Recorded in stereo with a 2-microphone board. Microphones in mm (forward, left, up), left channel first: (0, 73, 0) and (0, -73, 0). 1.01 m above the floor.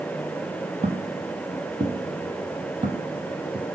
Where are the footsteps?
60° right (ahead or behind), 1.9 m; by 3.7 s 30° right (ahead or behind), 2 m.